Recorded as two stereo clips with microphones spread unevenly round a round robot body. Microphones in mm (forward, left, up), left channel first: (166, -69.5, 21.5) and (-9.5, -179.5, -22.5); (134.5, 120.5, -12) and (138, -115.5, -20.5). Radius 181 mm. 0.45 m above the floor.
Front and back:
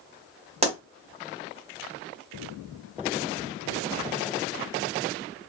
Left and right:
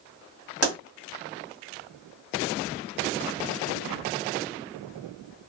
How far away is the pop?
About 2 m.